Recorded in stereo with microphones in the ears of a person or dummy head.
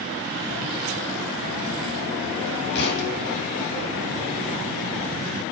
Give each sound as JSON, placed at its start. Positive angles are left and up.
{"t": 2.8, "sound": "a thud", "side_deg": 60, "distance_m": 9.0}